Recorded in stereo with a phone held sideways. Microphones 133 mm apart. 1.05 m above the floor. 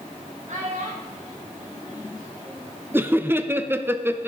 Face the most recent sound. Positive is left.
turn(degrees=-15)  # may be behind; listen again after turning